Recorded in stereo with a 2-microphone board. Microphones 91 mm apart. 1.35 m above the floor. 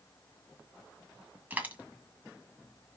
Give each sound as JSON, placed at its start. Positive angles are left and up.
{"t": 1.5, "sound": "a dropped coin", "side_deg": -20, "distance_m": 1.7}